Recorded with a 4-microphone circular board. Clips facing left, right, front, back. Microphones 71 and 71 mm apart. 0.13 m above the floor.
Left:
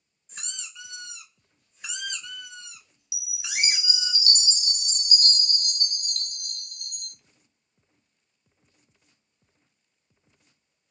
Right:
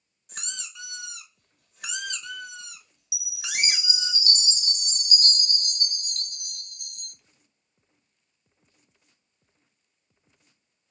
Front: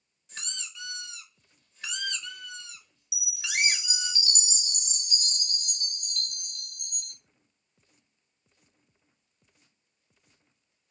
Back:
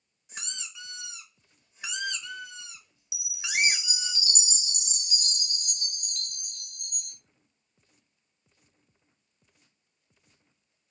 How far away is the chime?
About 0.7 m.